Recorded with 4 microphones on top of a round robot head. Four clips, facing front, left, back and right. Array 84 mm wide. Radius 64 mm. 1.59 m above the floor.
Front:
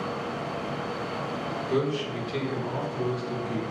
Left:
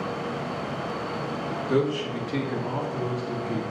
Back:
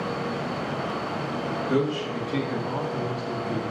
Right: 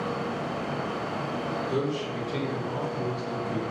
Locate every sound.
1.7 s a man speaking: 140° left, 2.5 m